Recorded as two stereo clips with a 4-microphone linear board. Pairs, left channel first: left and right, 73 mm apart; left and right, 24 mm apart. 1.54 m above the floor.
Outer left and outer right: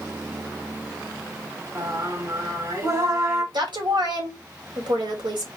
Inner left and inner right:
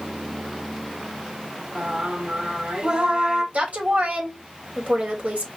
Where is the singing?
45° right (ahead or behind), 2 m.